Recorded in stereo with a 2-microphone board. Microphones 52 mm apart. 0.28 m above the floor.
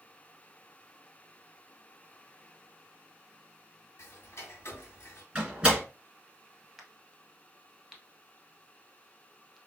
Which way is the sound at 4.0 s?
60° left (ahead or behind).